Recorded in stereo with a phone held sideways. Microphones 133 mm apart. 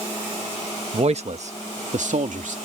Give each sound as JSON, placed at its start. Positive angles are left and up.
{"t": 0.9, "sound": "a man speaking", "side_deg": -50}